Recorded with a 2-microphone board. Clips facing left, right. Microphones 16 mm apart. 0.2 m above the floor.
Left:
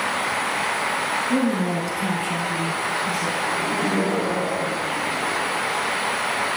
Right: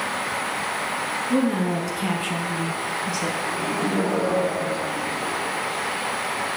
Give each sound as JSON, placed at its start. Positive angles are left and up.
{"t": 1.3, "sound": "a woman speaking", "side_deg": 10, "distance_m": 3.0}
{"t": 3.5, "sound": "laughter", "side_deg": 15, "distance_m": 7.0}